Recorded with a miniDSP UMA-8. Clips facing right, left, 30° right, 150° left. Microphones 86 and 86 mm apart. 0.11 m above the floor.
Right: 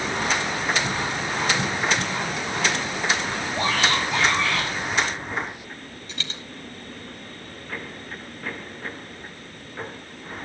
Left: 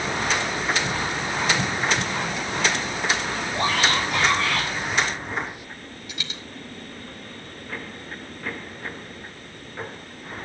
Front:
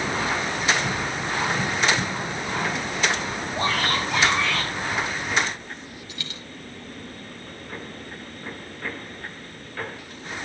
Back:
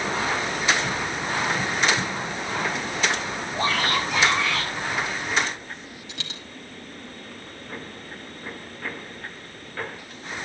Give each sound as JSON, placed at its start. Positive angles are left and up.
{"t": 3.5, "sound": "a shout", "azimuth_deg": 60, "distance_m": 5.5}
{"t": 6.1, "sound": "a dropped coin", "azimuth_deg": 170, "distance_m": 3.0}